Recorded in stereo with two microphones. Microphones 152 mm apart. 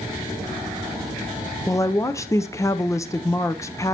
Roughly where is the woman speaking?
Centre.